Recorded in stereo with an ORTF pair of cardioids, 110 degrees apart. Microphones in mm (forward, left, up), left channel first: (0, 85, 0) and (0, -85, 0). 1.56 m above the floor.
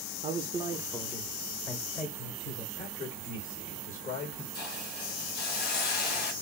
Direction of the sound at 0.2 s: 45° right.